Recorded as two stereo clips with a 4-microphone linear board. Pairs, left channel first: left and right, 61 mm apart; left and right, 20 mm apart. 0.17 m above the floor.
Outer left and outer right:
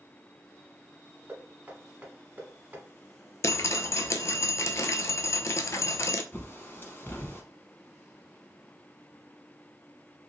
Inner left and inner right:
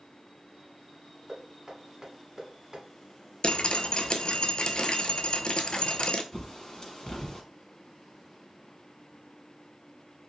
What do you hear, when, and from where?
1.3 s knocking: 25° right (ahead or behind), 1.0 m
3.4 s dripping: 55° left (ahead or behind), 0.5 m
6.3 s a bird: 35° left (ahead or behind), 0.8 m